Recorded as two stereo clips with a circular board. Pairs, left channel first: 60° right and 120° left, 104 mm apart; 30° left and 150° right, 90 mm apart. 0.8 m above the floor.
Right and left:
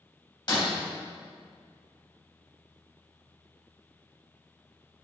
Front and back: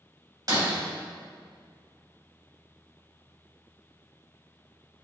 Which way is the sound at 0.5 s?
105° right.